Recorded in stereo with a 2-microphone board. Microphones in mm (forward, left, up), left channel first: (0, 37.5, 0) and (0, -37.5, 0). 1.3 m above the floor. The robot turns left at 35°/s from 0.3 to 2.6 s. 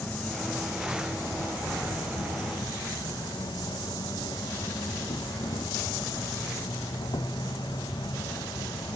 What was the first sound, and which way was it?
An insect, 160° left.